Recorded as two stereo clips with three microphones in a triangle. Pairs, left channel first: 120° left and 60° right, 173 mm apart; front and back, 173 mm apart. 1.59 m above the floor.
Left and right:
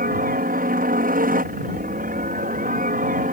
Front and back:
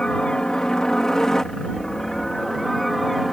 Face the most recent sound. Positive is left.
turn(degrees=-90)